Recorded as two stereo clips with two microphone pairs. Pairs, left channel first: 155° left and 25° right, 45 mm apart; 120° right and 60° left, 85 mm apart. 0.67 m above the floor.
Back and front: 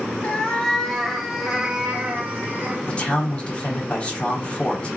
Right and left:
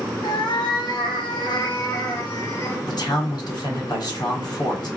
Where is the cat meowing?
145° right, 1.1 m; by 2.8 s 70° right, 1.3 m.